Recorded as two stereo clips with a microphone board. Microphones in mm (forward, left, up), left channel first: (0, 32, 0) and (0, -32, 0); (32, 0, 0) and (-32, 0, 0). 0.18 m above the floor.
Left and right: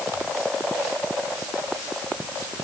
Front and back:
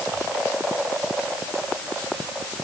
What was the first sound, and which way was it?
Only background noise.